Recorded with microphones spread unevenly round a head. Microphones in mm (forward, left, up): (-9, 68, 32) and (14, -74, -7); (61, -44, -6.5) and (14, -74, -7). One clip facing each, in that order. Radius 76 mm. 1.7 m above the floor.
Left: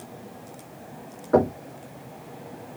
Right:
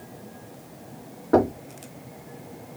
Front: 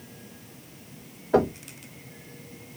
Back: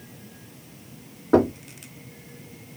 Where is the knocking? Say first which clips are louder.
Even, back 3 dB; 140° right, 2.5 m.